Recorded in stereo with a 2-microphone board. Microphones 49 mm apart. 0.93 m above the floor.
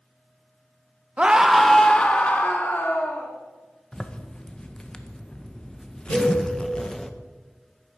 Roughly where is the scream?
Centre.